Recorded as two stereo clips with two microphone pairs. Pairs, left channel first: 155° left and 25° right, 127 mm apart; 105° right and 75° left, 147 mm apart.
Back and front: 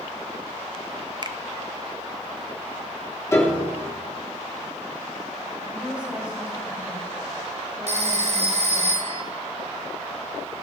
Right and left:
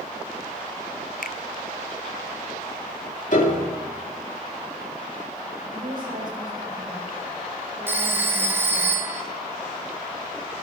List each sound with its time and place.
1.2 s a finger snap: 80° right, 0.6 m
3.3 s a piano: 135° right, 2.5 m
5.7 s a woman speaking: 55° left, 4.5 m
7.9 s a phone ringing: straight ahead, 1.3 m